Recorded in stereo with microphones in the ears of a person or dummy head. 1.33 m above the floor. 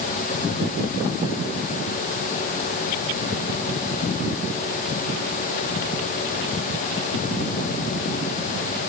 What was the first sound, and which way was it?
Only background noise.